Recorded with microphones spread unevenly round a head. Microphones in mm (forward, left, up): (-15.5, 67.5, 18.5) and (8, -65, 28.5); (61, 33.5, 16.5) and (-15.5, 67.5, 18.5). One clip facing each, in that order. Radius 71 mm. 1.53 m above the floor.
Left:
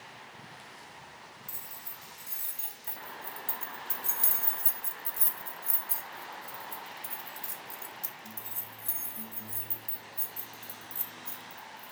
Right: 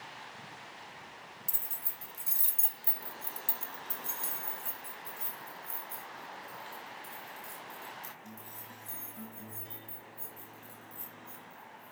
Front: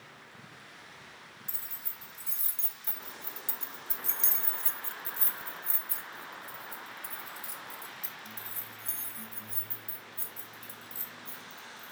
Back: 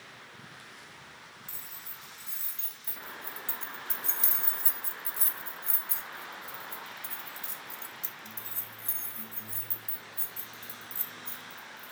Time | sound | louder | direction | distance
1.5 | keys jangling | even, back 1 dB | 80° right | 1.4 m